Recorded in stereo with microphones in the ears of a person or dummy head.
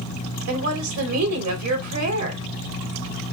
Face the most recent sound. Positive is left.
turn(degrees=-85)